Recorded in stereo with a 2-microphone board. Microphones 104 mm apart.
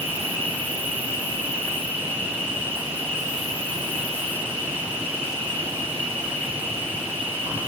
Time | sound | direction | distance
0.0 | an insect | 55° right (ahead or behind) | 3 m